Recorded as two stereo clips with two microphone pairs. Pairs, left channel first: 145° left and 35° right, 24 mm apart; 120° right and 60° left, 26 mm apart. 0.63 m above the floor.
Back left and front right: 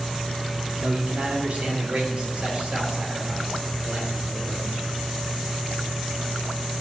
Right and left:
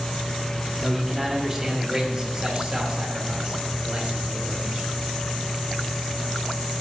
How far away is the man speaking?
About 1.8 m.